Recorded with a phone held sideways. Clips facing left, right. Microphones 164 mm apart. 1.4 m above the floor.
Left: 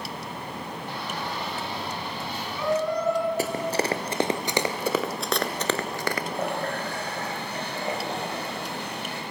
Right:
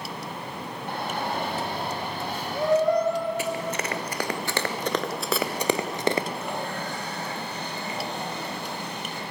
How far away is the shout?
About 1.8 m.